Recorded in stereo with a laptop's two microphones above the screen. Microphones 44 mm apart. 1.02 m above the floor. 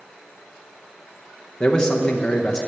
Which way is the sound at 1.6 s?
20° left (ahead or behind).